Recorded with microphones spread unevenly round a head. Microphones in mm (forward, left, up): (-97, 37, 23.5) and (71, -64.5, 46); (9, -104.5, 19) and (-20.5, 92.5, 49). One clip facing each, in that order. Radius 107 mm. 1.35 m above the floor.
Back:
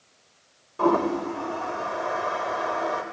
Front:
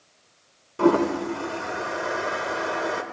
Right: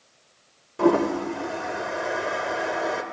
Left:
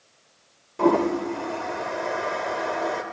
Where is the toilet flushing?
10° left, 1.3 m.